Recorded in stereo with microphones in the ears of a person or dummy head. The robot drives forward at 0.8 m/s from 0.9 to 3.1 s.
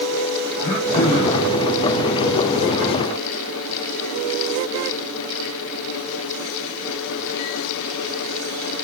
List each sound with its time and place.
0.6 s throat clearing: 50° left (ahead or behind), 8.5 m; by 1.5 s 55° left (ahead or behind), 8 m